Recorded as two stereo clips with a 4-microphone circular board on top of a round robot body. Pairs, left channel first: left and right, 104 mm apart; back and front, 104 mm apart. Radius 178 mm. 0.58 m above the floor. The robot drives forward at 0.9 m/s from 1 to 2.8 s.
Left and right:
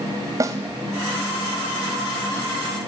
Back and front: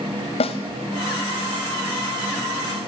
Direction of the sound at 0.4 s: 150° right.